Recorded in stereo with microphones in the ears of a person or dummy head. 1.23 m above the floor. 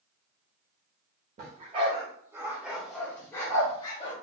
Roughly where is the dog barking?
Right.